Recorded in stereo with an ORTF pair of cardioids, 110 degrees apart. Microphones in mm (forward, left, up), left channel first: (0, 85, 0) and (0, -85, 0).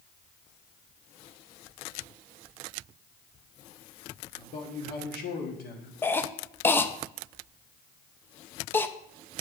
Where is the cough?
10° left, 0.5 m.